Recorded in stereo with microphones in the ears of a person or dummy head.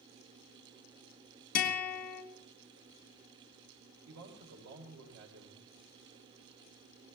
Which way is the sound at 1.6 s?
55° left (ahead or behind).